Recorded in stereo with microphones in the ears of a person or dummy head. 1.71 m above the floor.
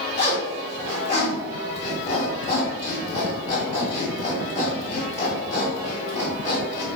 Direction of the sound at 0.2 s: 25° left (ahead or behind).